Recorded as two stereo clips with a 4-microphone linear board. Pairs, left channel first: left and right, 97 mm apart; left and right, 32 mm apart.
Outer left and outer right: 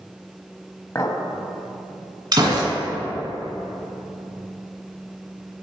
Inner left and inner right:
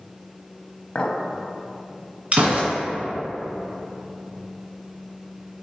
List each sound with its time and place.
0.9 s a clink: 30° left (ahead or behind), 0.6 m
2.3 s a gunshot: 45° right (ahead or behind), 1.8 m